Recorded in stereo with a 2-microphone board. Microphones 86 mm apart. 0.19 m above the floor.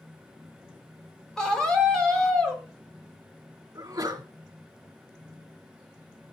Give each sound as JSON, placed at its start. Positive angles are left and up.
{"t": 1.4, "sound": "a scream", "side_deg": 10, "distance_m": 4.0}
{"t": 3.8, "sound": "a sneeze", "side_deg": -45, "distance_m": 2.0}